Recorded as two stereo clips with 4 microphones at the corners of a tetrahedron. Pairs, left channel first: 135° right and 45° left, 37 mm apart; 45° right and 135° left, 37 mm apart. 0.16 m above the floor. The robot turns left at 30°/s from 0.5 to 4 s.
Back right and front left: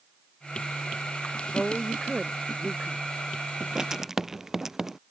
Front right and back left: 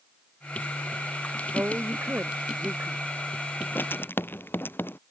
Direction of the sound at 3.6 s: 20° right.